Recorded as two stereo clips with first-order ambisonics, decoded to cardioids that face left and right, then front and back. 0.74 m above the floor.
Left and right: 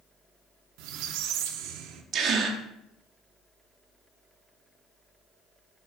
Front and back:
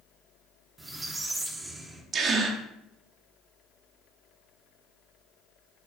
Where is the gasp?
130° right, 1.4 m.